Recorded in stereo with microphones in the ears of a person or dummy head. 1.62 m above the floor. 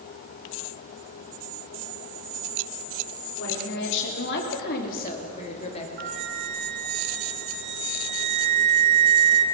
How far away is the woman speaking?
About 5 m.